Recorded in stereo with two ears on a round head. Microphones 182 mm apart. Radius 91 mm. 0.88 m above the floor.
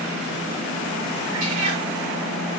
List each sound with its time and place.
1.3 s a cat meowing: 85° right, 8 m